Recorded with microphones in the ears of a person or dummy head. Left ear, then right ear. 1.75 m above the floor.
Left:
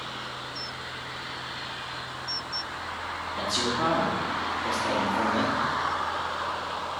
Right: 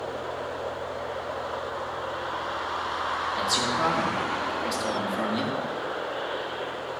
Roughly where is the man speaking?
Right.